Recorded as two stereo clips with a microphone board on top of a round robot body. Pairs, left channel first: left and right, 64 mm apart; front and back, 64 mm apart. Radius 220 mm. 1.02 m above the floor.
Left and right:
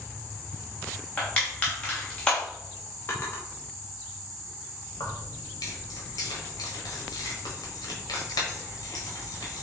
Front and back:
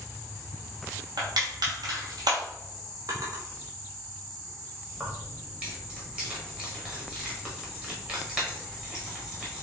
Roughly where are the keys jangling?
Left.